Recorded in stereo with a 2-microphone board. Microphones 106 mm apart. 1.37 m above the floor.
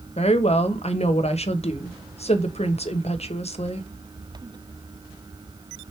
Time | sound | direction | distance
0.2 | a woman speaking | 80° left | 1.2 m